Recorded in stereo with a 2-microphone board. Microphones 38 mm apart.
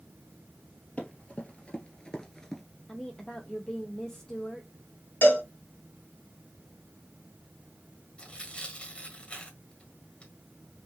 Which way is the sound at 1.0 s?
35° left (ahead or behind).